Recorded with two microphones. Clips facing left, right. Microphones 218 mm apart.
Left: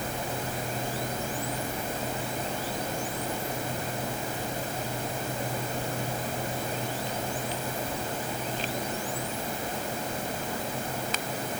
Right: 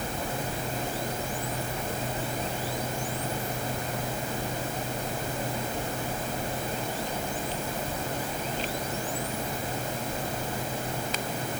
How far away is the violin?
I don't hear a violin.